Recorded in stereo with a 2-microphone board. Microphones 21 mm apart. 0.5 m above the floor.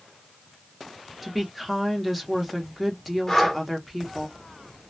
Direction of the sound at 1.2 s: Centre (ahead or behind).